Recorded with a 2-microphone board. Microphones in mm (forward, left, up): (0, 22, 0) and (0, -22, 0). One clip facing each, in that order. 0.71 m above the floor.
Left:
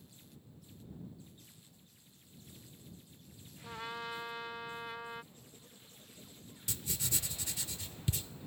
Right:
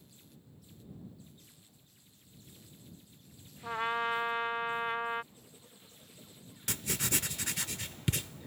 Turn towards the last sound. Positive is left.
turn(degrees=-60)  # may be behind; listen again after turning